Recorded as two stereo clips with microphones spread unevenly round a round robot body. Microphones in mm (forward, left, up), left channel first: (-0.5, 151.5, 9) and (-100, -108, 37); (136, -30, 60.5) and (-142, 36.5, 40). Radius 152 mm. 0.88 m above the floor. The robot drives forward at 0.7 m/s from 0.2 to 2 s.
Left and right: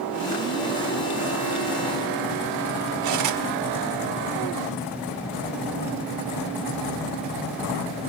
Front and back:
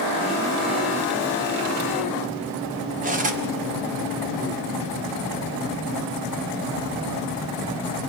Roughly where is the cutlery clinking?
Behind right.